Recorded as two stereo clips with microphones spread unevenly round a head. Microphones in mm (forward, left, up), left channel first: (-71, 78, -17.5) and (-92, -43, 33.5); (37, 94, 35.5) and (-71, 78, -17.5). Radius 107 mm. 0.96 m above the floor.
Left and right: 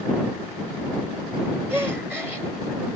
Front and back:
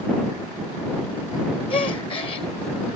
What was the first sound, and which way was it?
A gasp, 30° right.